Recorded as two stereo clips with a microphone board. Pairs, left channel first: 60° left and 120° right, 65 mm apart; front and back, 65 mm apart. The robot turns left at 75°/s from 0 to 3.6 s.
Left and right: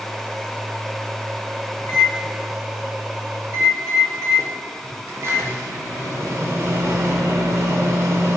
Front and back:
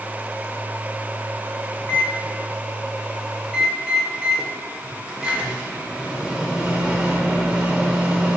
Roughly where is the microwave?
Ahead left.